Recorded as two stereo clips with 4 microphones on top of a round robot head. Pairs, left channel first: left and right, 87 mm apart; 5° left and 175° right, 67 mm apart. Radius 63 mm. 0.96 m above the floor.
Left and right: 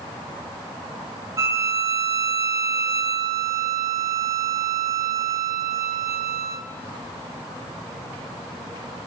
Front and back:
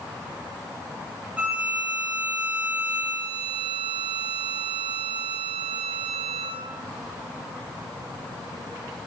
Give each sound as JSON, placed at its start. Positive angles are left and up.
{"t": 1.4, "sound": "a violin", "azimuth_deg": -115, "distance_m": 0.6}